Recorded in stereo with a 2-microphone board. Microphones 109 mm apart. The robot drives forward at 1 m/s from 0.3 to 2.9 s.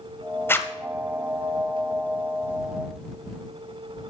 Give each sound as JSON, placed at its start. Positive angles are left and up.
{"t": 0.5, "sound": "a zipper", "side_deg": 20, "distance_m": 0.7}